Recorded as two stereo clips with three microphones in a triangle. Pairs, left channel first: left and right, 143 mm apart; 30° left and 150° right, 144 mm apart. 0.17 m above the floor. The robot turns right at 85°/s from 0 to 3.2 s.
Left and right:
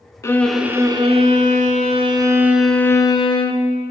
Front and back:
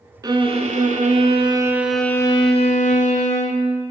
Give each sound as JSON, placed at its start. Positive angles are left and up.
{"t": 0.2, "sound": "a violin", "azimuth_deg": 155, "distance_m": 0.6}